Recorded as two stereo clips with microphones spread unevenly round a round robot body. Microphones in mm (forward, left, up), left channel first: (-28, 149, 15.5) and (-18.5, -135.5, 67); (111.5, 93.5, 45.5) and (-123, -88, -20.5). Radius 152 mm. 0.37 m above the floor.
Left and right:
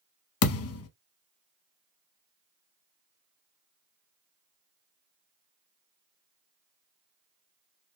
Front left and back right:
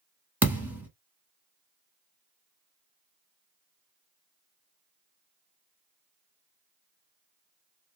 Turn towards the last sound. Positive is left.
turn(degrees=135)